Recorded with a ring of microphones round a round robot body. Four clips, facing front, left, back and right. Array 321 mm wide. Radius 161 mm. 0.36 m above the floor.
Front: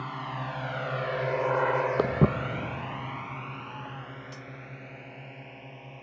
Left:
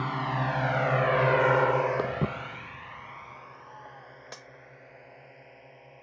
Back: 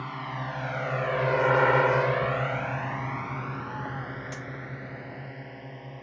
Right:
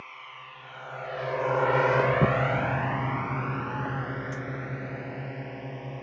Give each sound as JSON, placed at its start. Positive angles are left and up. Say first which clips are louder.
{"t": 0.0, "sound": "a drone", "louder": "left 15 dB, even", "azimuth_deg": 90}
{"t": 2.0, "sound": "footsteps", "louder": "right 7 dB, even", "azimuth_deg": 0}
{"t": 4.3, "sound": "cutlery clinking", "louder": "right 11 dB, back 5 dB", "azimuth_deg": 130}